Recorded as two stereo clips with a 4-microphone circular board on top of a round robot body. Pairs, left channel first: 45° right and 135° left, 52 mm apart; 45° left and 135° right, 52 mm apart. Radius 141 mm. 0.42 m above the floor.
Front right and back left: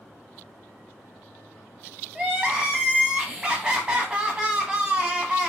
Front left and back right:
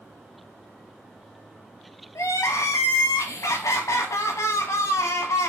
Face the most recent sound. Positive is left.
turn(degrees=65)